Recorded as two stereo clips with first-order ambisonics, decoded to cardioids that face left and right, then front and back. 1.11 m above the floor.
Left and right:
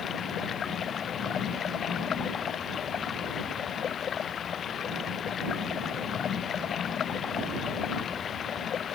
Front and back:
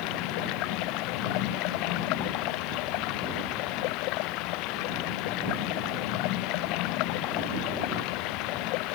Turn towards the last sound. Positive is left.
turn(degrees=25)